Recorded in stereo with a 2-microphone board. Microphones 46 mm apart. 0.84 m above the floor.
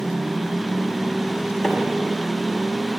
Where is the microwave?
5° right (ahead or behind), 1.4 m.